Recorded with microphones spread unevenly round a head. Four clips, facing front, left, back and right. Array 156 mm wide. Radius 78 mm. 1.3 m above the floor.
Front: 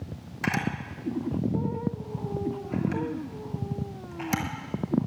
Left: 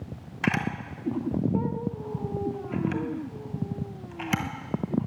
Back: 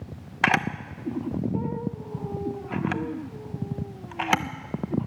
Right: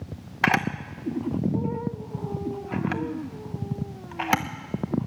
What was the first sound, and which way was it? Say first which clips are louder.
A camera shutter: right 4 dB, back 5 dB; 140° right.